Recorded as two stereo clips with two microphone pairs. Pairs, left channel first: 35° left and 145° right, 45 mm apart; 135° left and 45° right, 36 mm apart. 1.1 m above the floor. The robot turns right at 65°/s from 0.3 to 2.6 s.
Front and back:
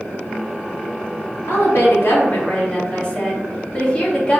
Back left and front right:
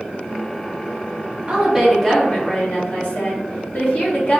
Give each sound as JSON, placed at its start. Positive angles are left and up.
{"t": 1.5, "sound": "a woman speaking", "azimuth_deg": 25, "distance_m": 1.3}